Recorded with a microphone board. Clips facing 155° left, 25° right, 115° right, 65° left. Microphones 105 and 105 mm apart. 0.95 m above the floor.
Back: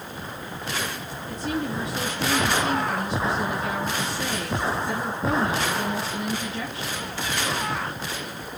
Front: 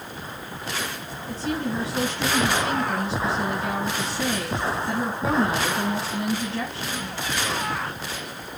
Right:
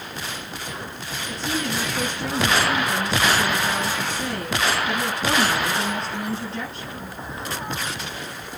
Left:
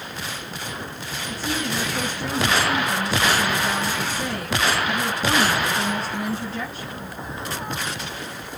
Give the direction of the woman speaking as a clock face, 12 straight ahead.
1 o'clock.